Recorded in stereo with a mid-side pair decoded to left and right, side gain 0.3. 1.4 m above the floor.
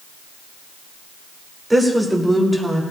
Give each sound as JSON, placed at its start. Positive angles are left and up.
{"t": 1.7, "sound": "a woman speaking", "azimuth_deg": -20, "distance_m": 3.0}